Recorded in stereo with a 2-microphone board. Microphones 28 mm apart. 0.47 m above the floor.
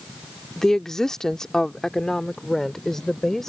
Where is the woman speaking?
15° left (ahead or behind).